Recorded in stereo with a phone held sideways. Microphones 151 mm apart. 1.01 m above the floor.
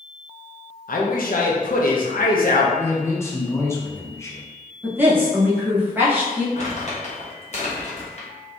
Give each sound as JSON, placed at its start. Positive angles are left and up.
{"t": 0.9, "sound": "a man speaking", "side_deg": 70, "distance_m": 0.6}
{"t": 2.8, "sound": "a man speaking", "side_deg": 20, "distance_m": 0.6}
{"t": 4.8, "sound": "a woman speaking", "side_deg": -15, "distance_m": 1.0}
{"t": 6.5, "sound": "crumpling", "side_deg": 50, "distance_m": 0.9}